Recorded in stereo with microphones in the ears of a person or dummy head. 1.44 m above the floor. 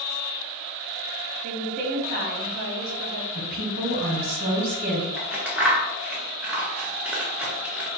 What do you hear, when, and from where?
1.4 s a woman speaking: 45° right (ahead or behind), 1.2 m
3.4 s a woman speaking: 50° right (ahead or behind), 1.1 m
5.2 s scissors: 10° right (ahead or behind), 0.7 m